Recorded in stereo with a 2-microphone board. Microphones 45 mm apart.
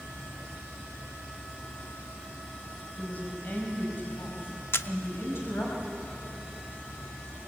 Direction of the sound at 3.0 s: 30° left (ahead or behind).